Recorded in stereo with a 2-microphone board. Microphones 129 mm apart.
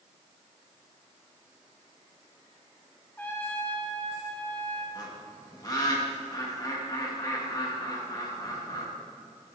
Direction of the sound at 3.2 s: 15° left (ahead or behind).